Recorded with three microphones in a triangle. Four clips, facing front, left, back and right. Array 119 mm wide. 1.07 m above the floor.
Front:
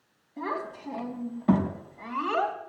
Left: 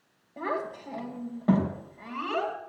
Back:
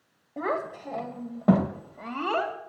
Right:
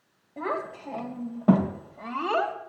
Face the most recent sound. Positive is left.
turn(degrees=-140)